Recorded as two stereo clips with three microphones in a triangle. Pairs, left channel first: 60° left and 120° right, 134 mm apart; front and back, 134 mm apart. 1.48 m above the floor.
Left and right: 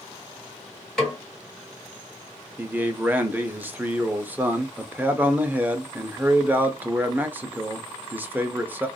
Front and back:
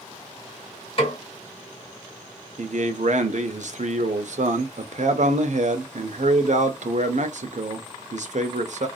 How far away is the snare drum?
About 1.5 m.